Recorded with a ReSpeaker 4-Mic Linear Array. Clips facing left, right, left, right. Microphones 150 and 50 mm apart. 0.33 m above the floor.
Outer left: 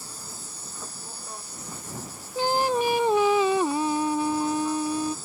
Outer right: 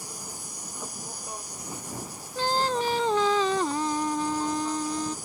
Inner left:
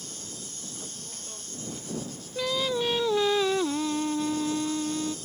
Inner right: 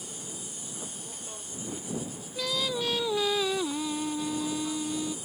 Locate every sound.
0.0 s an insect: 15° right (ahead or behind)
2.4 s singing: 15° left (ahead or behind)